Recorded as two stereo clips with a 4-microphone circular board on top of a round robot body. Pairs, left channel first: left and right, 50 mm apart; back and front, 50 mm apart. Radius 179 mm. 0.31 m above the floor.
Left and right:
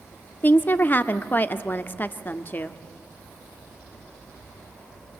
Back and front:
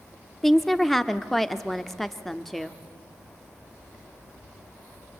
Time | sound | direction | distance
0.4 | a woman speaking | 95° left | 1.1 m